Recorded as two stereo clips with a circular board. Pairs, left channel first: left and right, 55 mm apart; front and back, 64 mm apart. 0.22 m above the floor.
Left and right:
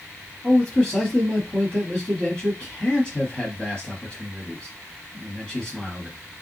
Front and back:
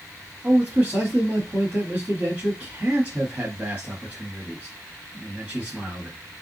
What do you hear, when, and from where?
0.4 s a man speaking: 145° left, 1.0 m